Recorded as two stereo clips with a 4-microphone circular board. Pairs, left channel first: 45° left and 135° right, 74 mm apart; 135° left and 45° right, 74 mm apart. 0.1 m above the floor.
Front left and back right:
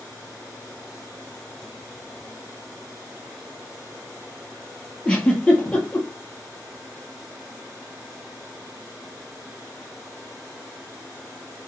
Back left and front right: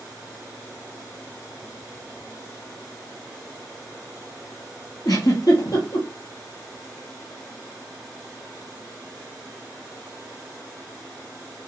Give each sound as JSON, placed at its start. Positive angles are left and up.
{"t": 5.0, "sound": "a giggle", "azimuth_deg": 120, "distance_m": 2.0}